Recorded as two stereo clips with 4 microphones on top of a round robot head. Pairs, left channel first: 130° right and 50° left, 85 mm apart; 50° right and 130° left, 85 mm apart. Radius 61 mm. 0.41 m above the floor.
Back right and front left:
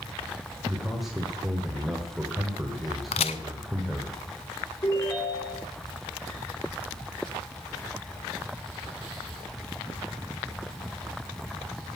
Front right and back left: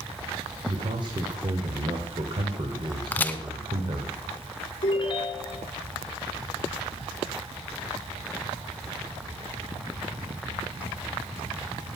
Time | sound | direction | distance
0.7 | a man speaking | 135° left | 1.7 m
3.1 | a crack | 115° right | 0.6 m
4.8 | a ringtone | 80° right | 2.5 m